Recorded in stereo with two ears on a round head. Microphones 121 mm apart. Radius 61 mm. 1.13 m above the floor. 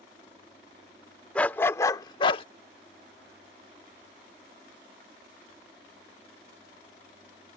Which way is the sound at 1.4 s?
10° left (ahead or behind).